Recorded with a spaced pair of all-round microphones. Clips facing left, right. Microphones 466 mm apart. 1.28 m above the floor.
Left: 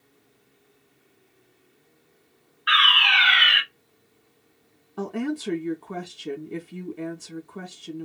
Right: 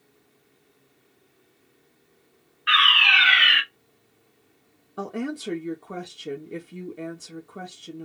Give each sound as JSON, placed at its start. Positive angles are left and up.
{"t": 2.7, "sound": "a fire alarm", "side_deg": -45, "distance_m": 1.2}
{"t": 5.0, "sound": "a woman speaking", "side_deg": 10, "distance_m": 0.6}